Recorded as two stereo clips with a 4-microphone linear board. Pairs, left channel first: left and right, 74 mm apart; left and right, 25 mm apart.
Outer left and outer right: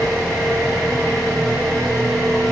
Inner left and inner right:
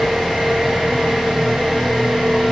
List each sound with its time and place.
0.0 s an engine running: 55° right (ahead or behind), 4 m